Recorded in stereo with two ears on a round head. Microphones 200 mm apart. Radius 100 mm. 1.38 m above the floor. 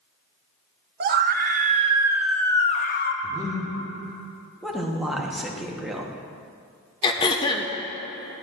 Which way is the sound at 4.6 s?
Centre (ahead or behind).